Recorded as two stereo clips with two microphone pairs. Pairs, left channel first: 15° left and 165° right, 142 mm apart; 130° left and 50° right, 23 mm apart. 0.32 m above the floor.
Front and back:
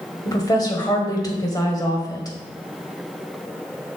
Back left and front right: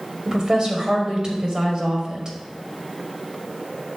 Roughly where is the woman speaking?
Ahead right.